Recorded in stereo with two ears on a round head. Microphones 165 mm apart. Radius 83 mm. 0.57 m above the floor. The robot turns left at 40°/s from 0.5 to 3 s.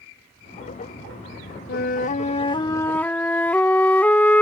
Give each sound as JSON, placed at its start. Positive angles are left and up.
{"t": 1.7, "sound": "a flute", "azimuth_deg": 60}